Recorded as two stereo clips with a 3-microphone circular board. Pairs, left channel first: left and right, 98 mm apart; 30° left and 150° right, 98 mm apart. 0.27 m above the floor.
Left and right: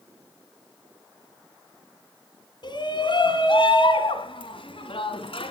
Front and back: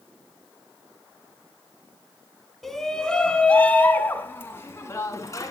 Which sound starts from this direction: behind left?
A shout, at 2.6 s.